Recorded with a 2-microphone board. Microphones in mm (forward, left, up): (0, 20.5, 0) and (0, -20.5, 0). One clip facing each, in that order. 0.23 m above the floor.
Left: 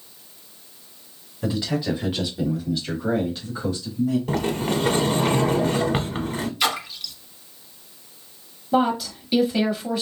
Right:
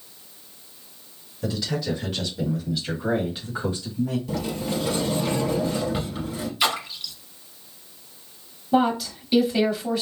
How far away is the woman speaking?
About 0.9 m.